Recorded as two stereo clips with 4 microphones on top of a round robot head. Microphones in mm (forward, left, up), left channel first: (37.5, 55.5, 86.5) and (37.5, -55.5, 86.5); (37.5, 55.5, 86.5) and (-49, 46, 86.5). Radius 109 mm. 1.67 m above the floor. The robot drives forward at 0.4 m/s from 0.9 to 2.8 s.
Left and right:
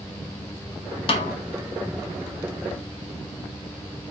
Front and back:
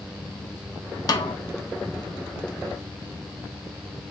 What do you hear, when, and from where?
1.1 s a snare drum: 50° left, 0.6 m; by 1.4 s 60° left, 0.6 m